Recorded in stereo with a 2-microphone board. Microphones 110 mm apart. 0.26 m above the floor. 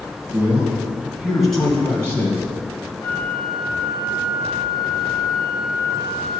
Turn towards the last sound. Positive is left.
turn(degrees=-55)  # may be behind; listen again after turning